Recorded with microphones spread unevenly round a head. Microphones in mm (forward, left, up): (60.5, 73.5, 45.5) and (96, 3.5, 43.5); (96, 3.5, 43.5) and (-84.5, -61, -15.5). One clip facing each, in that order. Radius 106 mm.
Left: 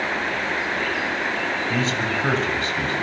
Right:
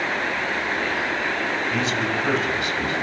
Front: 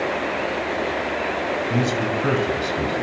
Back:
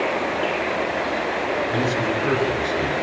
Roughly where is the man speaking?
Ahead left.